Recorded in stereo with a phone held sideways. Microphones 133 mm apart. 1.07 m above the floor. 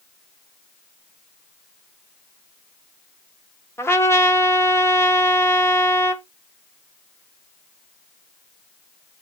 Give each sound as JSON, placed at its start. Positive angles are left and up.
{"t": 3.8, "sound": "a trumpet", "side_deg": 20, "distance_m": 0.7}